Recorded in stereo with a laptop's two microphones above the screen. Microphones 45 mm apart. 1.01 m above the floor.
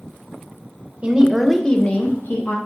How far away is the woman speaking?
About 0.5 m.